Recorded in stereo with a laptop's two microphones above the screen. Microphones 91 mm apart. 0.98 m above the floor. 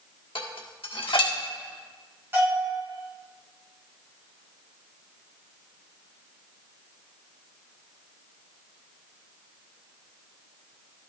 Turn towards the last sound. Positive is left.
turn(degrees=-25)  # may be behind; listen again after turning